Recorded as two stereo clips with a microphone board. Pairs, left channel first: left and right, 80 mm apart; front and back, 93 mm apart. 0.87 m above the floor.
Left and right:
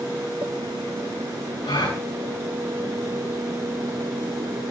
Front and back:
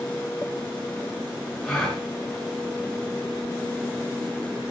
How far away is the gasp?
About 5 m.